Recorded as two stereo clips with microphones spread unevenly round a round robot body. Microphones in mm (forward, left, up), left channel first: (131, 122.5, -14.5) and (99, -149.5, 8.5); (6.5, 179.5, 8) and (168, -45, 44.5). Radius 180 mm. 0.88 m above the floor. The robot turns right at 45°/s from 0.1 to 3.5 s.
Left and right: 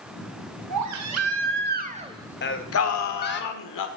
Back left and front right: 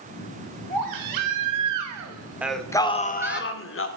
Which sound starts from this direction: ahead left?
Singing, at 2.4 s.